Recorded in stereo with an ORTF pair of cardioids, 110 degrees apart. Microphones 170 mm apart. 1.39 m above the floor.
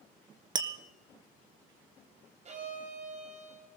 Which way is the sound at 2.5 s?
45° right.